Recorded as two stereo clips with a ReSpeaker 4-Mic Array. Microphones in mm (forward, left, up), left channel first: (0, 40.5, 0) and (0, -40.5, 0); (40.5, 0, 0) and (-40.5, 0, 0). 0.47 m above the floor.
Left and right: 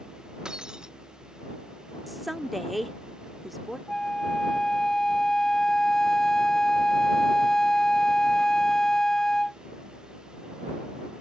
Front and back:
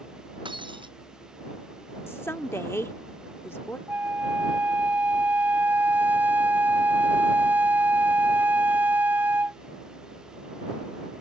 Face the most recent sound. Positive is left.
turn(degrees=165)